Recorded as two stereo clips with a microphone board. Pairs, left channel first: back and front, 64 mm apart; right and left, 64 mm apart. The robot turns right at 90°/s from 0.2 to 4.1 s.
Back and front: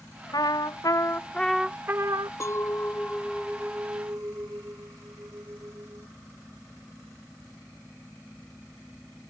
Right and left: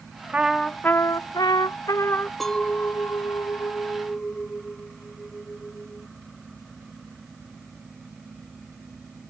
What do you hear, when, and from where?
0.3 s a trumpet: 160° left; by 2.3 s 20° right
2.4 s a clink: 175° right; by 6.1 s 25° right